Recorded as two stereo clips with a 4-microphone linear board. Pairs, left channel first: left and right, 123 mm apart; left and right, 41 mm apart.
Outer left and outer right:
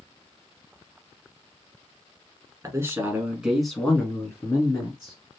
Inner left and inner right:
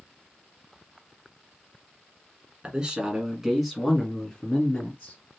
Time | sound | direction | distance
2.6 | a man speaking | 25° right (ahead or behind) | 1.5 m